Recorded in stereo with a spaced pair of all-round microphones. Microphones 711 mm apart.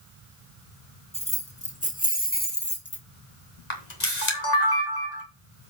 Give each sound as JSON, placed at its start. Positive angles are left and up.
{"t": 1.1, "sound": "keys jangling", "side_deg": 10, "distance_m": 2.0}
{"t": 3.7, "sound": "a camera shutter", "side_deg": 70, "distance_m": 2.5}